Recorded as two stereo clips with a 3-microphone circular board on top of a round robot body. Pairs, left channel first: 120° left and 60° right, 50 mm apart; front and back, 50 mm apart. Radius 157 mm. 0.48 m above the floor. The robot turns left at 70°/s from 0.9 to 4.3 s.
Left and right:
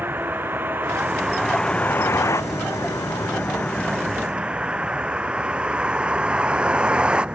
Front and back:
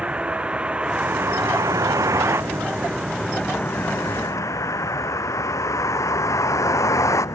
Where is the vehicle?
110° right; by 7.3 s 10° left.